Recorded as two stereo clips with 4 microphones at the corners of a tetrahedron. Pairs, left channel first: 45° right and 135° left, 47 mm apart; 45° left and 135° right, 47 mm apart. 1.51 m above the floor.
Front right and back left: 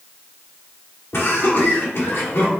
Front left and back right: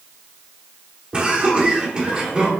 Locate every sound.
1.1 s laughter: 70° right, 1.4 m